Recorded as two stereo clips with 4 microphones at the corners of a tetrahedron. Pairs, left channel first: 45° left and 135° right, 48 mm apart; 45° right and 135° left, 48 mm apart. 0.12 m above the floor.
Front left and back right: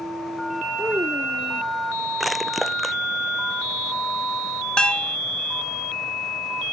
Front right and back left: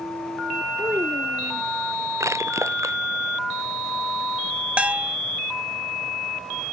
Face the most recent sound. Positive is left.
turn(degrees=100)